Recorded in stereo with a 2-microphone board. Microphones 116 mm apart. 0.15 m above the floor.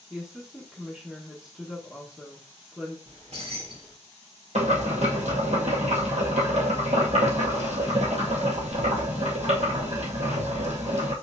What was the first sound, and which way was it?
A woman speaking, 5° right (ahead or behind).